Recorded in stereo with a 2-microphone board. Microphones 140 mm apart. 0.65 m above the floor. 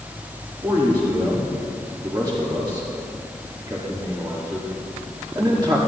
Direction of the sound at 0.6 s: 30° right (ahead or behind).